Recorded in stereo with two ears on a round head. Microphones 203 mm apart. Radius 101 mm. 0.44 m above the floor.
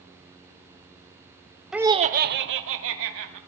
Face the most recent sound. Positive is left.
turn(degrees=-70)  # may be behind; listen again after turning